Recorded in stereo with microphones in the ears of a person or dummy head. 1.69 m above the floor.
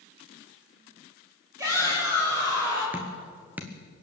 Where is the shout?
20° right (ahead or behind), 8 m; by 2.8 s 10° right (ahead or behind), 7.5 m.